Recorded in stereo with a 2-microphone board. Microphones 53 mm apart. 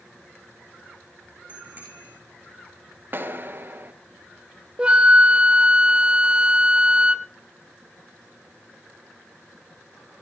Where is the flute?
20° right (ahead or behind), 0.5 m.